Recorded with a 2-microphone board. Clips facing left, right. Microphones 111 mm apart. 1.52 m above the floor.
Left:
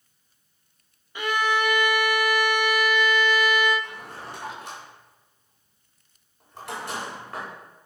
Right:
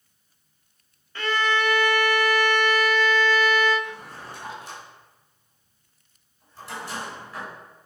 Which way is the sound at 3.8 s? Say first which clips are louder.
Right 1 dB; 75° left (ahead or behind).